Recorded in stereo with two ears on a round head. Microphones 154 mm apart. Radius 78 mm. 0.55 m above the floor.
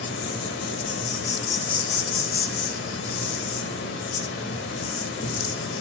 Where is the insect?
75° left (ahead or behind), 1.2 m.